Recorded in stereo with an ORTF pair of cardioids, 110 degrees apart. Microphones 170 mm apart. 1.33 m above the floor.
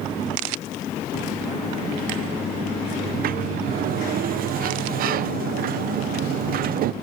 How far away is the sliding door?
About 0.7 m.